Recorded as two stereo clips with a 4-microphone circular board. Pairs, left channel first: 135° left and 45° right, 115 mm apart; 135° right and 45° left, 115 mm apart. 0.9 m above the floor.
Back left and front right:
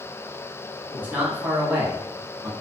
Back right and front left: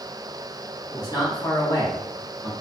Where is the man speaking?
105° right, 1.0 m.